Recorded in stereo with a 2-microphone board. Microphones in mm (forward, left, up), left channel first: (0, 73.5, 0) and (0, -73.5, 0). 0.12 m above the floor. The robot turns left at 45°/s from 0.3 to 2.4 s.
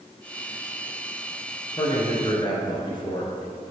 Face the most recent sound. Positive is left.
turn(degrees=35)  # may be behind; listen again after turning